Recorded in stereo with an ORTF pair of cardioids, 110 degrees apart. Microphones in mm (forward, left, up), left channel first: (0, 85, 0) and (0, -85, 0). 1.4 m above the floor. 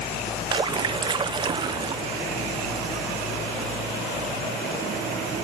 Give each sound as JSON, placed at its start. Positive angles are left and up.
{"t": 0.5, "sound": "a splash", "azimuth_deg": -25, "distance_m": 0.8}